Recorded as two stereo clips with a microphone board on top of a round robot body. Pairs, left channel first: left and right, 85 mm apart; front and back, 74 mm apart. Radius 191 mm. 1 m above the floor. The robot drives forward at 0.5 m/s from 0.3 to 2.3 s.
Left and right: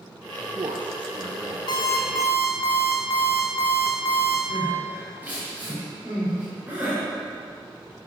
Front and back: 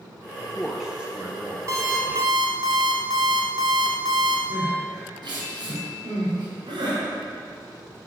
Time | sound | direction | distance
0.4 | a man speaking | 80° right | 1.0 m
1.7 | an alarm clock | 130° left | 0.7 m
4.5 | crying | 160° right | 2 m